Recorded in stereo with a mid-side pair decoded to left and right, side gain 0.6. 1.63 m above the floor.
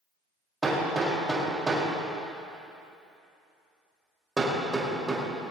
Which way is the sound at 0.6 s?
15° right.